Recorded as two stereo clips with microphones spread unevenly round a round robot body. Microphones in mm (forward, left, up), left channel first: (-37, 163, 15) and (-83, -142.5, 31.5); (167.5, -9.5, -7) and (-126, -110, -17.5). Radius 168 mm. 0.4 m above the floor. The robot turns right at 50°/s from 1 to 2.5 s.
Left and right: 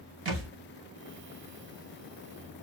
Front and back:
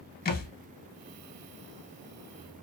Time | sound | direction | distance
0.2 | a thud | 45° right | 0.7 m